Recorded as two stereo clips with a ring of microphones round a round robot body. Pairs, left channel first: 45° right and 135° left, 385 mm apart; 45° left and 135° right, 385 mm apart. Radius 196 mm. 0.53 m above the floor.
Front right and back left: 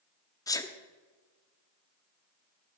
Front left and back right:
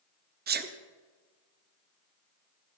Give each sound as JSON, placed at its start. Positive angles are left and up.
{"t": 0.5, "sound": "a sneeze", "azimuth_deg": -115, "distance_m": 0.8}